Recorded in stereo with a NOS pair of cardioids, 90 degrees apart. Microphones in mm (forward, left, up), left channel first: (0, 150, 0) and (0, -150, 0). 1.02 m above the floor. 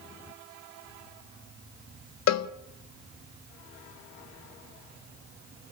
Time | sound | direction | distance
2.3 | a cowbell | 60° left | 1.5 m